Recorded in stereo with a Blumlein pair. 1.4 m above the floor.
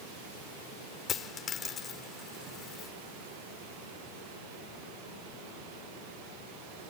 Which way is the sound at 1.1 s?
20° left.